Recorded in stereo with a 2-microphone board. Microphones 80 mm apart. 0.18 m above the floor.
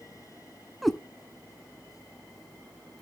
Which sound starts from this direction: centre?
A cat meowing, at 0.8 s.